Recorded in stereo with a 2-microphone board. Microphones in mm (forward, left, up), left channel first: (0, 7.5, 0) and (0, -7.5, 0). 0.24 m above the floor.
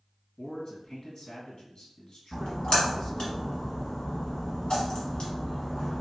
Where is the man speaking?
55° left (ahead or behind), 1.6 m.